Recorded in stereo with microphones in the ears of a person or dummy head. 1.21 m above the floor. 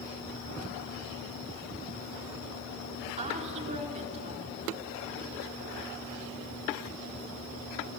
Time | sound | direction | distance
3.2 | a woman speaking | 40° right (ahead or behind) | 3.5 m